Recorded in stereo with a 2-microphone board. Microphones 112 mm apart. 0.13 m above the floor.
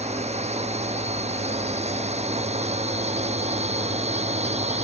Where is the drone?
75° right (ahead or behind).